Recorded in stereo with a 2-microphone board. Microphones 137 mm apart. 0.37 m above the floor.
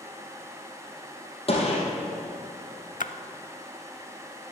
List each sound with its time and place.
1.5 s a gunshot: 45° left (ahead or behind), 3.5 m
3.0 s a splash: 70° left (ahead or behind), 0.5 m